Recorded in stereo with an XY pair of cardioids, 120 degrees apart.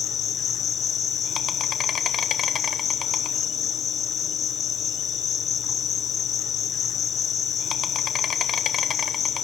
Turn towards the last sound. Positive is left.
turn(degrees=50)